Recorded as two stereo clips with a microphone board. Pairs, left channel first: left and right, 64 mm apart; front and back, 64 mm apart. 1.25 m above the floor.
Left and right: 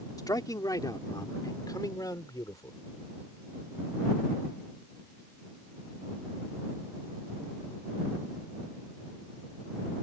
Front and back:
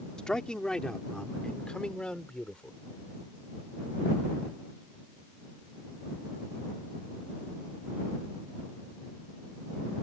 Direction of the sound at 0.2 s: 80° left.